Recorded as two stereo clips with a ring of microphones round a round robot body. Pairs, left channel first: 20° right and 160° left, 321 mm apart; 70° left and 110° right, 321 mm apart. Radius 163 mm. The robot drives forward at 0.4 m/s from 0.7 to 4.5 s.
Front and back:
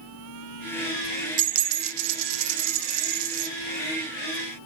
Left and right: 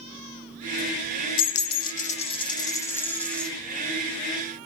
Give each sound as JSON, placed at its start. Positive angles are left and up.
{"t": 1.4, "sound": "a dropped coin", "azimuth_deg": 110, "distance_m": 0.6}